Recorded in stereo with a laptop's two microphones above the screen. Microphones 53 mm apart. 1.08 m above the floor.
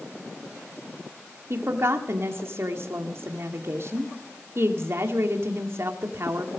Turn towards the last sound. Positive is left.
turn(degrees=-55)  # may be behind; listen again after turning